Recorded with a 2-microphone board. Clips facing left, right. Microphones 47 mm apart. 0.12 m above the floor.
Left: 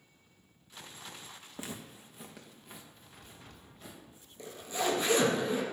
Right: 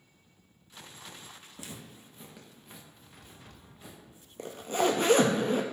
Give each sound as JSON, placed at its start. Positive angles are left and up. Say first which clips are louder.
{"t": 1.6, "sound": "footsteps", "louder": "left 4 dB", "side_deg": 35, "distance_m": 0.5}
{"t": 4.4, "sound": "a zipper", "louder": "right 6 dB", "side_deg": -55, "distance_m": 0.5}